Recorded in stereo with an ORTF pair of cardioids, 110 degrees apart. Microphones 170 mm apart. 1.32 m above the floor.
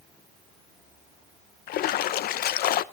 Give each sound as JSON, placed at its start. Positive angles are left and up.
{"t": 1.7, "sound": "a splash", "azimuth_deg": 65, "distance_m": 0.8}